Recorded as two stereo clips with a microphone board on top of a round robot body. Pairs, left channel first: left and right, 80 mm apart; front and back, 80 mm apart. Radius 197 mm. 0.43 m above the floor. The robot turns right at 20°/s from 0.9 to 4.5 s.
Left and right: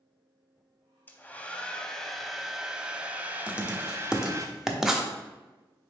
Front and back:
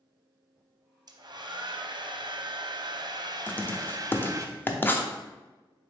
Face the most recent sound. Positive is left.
turn(degrees=-15)